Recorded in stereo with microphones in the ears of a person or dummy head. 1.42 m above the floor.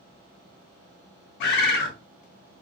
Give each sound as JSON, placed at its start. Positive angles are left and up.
{"t": 1.4, "sound": "a bird", "side_deg": 60, "distance_m": 0.5}